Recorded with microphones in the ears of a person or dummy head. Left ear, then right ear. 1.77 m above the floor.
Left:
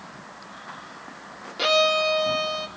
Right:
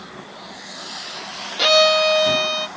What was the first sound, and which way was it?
A violin, 30° right (ahead or behind).